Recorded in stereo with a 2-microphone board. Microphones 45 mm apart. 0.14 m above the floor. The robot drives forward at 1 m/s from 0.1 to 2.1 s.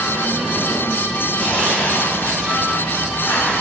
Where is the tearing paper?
35° left (ahead or behind), 4.5 m; by 3.6 s 40° left (ahead or behind), 4 m.